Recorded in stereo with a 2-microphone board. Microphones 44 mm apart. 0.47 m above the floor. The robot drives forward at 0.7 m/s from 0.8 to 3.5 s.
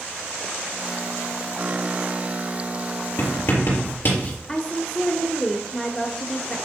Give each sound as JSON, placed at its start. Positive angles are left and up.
{"t": 3.2, "sound": "writing", "side_deg": 55, "distance_m": 3.5}
{"t": 4.5, "sound": "a woman speaking", "side_deg": 15, "distance_m": 1.0}